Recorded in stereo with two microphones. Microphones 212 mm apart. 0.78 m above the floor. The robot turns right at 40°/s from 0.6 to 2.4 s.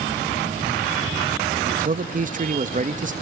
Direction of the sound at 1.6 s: 100° right.